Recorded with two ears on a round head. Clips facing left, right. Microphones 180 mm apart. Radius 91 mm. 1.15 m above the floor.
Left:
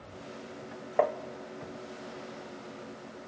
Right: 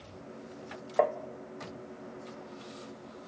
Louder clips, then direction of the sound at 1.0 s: Even; centre (ahead or behind).